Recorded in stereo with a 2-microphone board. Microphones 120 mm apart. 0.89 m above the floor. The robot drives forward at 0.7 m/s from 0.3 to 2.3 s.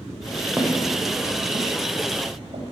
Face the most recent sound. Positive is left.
turn(degrees=-70)  # may be behind; listen again after turning